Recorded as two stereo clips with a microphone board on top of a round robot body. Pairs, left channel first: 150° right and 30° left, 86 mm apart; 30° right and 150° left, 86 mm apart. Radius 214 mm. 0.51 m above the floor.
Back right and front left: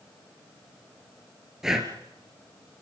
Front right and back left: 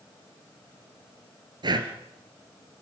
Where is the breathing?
115° left, 1.9 m.